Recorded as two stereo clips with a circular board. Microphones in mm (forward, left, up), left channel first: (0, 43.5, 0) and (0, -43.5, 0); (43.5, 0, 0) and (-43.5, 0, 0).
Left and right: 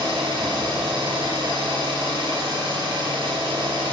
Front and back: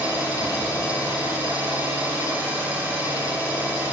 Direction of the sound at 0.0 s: 110° right.